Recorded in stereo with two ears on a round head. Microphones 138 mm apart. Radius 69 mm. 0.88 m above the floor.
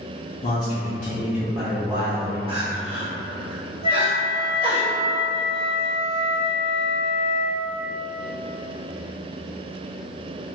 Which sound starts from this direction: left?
A man speaking, at 0.4 s.